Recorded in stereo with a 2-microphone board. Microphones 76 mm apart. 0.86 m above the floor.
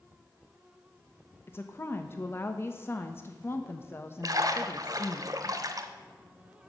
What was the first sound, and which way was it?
A woman speaking, 30° left (ahead or behind).